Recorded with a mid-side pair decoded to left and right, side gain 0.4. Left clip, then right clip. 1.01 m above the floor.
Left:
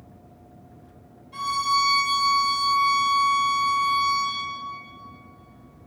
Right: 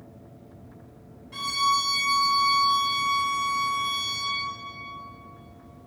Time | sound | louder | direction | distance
1.3 | a violin | left 1 dB | 65° right | 2.5 m